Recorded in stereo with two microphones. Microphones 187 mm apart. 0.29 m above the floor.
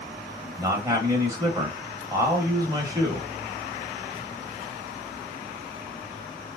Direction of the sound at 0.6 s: 20° right (ahead or behind).